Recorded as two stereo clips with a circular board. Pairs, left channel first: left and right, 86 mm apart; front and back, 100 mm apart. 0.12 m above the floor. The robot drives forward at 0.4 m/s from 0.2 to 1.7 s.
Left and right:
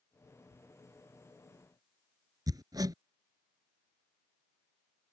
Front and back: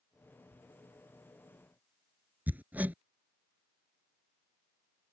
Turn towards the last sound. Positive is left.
turn(degrees=-110)